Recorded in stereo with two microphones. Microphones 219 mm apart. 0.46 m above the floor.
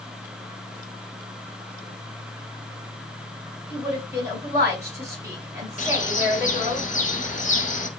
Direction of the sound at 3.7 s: 15° right (ahead or behind).